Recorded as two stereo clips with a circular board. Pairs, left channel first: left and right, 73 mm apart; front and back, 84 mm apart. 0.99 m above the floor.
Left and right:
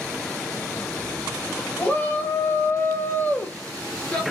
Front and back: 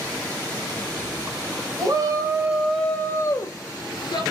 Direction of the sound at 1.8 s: 155° left.